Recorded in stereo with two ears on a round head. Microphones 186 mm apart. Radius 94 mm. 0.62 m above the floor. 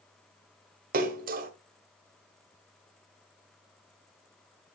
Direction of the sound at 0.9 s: 45° right (ahead or behind).